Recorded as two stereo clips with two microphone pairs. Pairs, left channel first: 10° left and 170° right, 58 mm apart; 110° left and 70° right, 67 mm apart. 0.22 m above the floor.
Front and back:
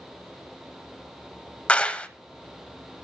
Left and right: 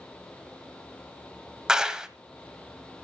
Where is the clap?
5° right, 0.9 m.